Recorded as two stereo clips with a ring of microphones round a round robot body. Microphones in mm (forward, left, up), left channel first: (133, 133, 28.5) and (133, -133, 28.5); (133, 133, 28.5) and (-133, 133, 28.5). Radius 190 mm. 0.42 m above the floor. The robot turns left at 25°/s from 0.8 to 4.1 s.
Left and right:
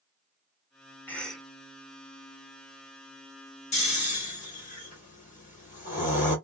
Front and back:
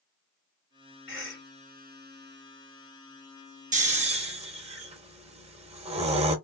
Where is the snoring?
140° left, 1.1 m; by 6.3 s 130° left, 1.1 m.